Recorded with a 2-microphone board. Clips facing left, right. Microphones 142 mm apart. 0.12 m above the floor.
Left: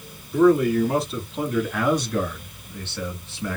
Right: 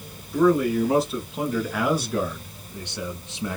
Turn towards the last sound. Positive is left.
turn(degrees=-20)  # may be behind; listen again after turning